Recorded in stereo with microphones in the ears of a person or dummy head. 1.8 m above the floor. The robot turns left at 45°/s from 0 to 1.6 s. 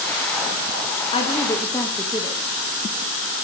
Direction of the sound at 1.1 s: 35° left (ahead or behind).